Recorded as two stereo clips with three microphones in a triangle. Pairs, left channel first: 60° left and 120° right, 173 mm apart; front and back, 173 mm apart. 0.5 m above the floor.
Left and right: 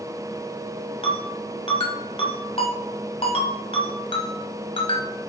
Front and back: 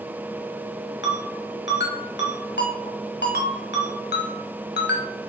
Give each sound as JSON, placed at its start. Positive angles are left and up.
{"t": 1.0, "sound": "a ringtone", "azimuth_deg": 5, "distance_m": 1.4}